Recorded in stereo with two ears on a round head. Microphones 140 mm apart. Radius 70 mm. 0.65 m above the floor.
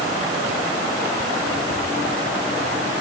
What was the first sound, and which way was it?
Only background noise.